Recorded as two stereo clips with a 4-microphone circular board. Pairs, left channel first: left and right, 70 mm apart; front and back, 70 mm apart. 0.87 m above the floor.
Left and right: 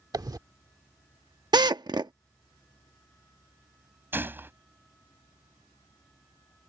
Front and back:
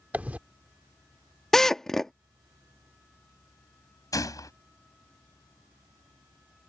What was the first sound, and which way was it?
A dropped coin, 110° right.